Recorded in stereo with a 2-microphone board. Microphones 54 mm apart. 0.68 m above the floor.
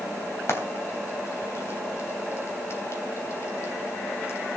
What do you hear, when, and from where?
0.5 s frying: 50° left (ahead or behind), 3 m